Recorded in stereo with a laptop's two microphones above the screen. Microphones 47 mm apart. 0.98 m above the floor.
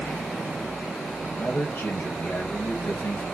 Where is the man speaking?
55° left (ahead or behind), 5 m; by 3.2 s 65° left (ahead or behind), 4.5 m.